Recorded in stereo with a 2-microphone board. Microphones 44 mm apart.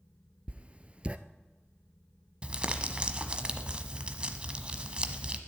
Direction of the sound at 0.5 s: 25° right (ahead or behind).